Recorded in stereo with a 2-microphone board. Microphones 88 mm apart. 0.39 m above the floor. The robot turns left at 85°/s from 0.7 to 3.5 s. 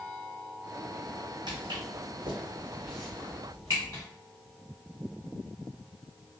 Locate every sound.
1.5 s footsteps: 55° right (ahead or behind), 1.3 m; by 4.0 s 35° left (ahead or behind), 3 m